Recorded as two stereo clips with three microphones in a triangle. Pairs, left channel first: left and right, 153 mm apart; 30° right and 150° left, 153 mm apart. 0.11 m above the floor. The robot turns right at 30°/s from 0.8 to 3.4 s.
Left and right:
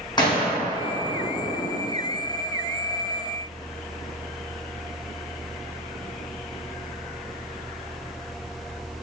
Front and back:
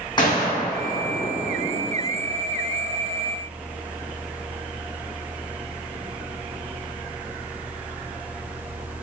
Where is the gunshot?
30° left, 1.3 m; by 1.8 s 60° left, 1.3 m.